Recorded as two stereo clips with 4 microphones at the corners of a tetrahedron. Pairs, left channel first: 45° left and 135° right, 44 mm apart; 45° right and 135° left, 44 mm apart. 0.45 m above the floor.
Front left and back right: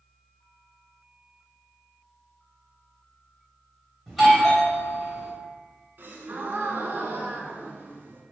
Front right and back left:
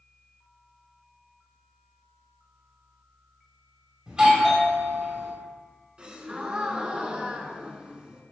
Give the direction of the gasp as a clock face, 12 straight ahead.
5 o'clock.